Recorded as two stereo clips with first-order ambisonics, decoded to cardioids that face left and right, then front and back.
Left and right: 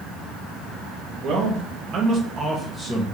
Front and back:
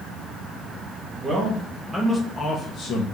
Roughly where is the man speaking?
Behind right.